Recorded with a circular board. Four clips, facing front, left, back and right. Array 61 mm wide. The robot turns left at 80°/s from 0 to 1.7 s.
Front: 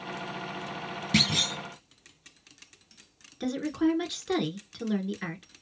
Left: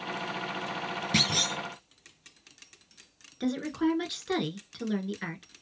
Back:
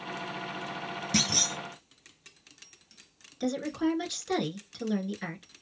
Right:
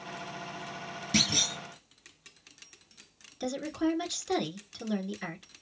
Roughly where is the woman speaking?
Ahead left.